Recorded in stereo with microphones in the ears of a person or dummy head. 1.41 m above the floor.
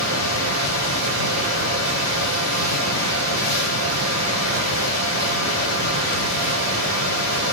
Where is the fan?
75° right (ahead or behind), 8.5 m.